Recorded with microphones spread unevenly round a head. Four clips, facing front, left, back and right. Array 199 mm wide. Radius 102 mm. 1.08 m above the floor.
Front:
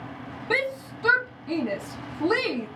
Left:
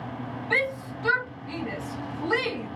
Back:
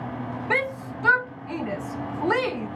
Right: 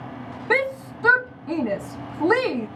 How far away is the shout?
About 1.0 m.